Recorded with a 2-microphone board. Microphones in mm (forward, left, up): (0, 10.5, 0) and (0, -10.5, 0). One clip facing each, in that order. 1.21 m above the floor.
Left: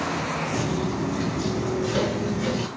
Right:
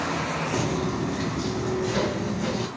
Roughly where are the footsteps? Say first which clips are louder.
Even; right.